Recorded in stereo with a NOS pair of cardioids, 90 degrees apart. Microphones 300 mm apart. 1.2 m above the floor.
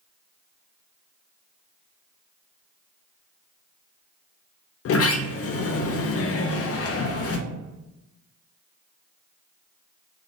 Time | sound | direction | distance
4.8 | a sliding door | 55° left | 0.5 m